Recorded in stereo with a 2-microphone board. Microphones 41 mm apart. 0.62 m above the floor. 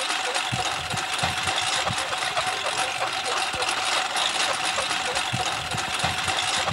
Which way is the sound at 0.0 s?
Centre (ahead or behind).